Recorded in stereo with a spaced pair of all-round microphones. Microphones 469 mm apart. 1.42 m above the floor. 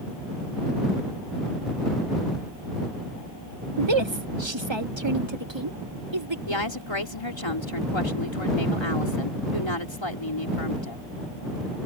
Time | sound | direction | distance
3.8 | a woman speaking | 75° right (ahead or behind) | ?
6.5 | a woman speaking | 85° left | ?